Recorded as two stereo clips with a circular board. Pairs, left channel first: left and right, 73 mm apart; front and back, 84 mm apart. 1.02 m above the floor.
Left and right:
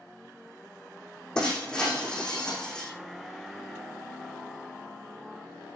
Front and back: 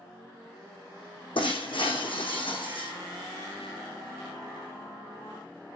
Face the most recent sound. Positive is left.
turn(degrees=10)